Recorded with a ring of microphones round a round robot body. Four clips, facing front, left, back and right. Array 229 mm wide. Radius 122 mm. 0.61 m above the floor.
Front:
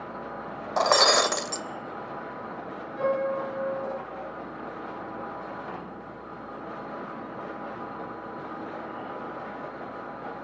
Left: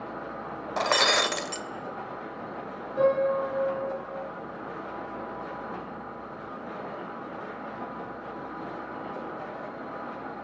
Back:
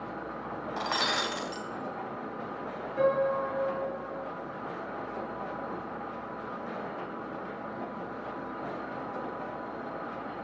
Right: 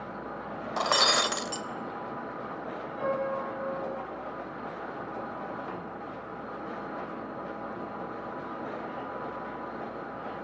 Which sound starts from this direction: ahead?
Breaking glass, at 0.8 s.